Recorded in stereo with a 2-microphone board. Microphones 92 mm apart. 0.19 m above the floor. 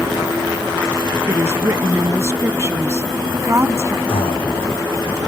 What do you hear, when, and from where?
1.3 s a woman speaking: 30° right (ahead or behind)
4.1 s breathing: 85° left